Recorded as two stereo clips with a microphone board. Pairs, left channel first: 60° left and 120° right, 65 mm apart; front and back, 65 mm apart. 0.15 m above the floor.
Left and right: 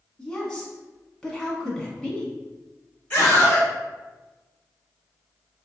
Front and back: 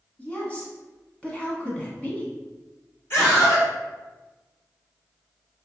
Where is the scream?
5° left, 1.4 m.